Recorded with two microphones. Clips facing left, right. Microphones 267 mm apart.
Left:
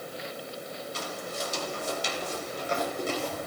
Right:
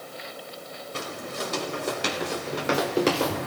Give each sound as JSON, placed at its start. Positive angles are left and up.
{"t": 0.9, "sound": "footsteps", "side_deg": -65, "distance_m": 5.0}